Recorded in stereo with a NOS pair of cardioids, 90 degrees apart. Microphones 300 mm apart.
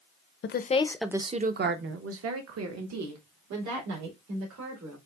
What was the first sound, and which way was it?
A woman speaking, 40° left.